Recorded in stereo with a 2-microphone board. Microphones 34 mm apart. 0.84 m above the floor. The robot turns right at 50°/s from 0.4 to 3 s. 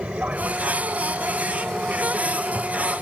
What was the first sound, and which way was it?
An aircraft, 40° right (ahead or behind).